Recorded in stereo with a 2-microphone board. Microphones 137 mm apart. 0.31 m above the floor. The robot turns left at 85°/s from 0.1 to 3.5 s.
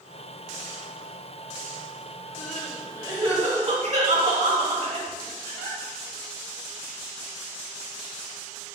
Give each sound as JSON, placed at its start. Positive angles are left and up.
{"t": 2.4, "sound": "crying", "side_deg": 25, "distance_m": 1.3}